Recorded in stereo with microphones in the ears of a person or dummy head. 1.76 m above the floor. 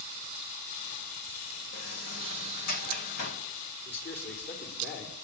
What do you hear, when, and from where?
1.7 s a sliding door: 60° left (ahead or behind), 1.7 m
3.9 s a man speaking: 55° left (ahead or behind), 4.5 m